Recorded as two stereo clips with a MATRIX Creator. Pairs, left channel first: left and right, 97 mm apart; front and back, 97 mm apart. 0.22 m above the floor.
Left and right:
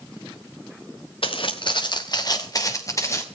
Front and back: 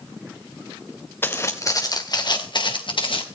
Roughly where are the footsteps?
Left.